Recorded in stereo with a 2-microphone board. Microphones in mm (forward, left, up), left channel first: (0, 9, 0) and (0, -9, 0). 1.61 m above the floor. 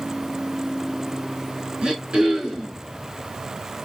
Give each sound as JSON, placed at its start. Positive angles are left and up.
{"t": 1.8, "sound": "throat clearing", "side_deg": -70, "distance_m": 4.5}